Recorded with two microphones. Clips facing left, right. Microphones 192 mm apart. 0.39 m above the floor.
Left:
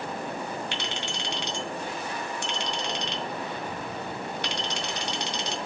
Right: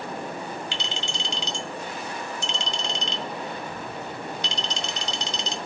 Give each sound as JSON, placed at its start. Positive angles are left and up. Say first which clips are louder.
{"t": 0.7, "sound": "a clink", "louder": "even", "side_deg": 60, "distance_m": 1.4}